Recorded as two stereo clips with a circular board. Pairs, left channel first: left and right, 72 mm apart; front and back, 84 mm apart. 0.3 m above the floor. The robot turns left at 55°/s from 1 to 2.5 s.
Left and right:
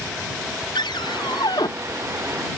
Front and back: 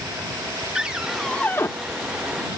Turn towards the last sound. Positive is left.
turn(degrees=15)